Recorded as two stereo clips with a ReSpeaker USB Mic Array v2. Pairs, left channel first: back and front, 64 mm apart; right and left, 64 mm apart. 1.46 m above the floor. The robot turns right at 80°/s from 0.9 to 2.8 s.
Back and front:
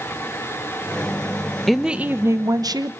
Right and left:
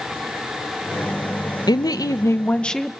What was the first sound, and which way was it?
A woman speaking, 95° right.